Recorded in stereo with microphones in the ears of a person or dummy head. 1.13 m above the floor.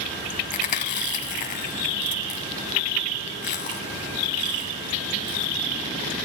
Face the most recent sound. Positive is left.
turn(degrees=40)  # may be behind; listen again after turning